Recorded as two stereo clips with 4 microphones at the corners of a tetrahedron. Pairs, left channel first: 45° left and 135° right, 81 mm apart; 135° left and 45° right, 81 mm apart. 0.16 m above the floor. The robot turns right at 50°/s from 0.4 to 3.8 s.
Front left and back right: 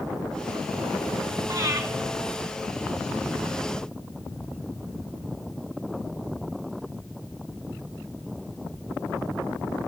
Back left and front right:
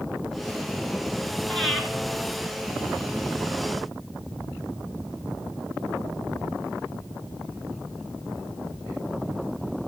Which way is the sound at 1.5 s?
145° right.